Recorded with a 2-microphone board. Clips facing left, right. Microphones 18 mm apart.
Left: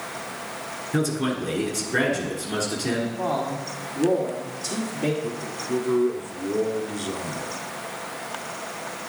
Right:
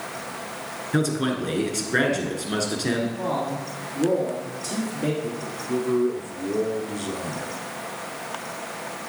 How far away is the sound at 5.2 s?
About 1.1 m.